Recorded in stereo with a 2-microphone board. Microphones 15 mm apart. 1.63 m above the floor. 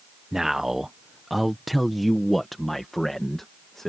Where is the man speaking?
35° right (ahead or behind); by 3.9 s 20° left (ahead or behind).